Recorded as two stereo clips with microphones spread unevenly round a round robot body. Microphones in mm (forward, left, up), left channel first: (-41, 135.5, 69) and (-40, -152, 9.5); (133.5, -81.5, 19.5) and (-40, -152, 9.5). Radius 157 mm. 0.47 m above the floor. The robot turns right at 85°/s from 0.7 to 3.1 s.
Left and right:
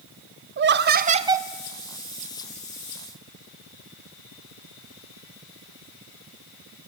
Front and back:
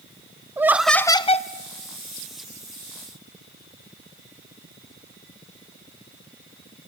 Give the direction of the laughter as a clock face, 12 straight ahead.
3 o'clock.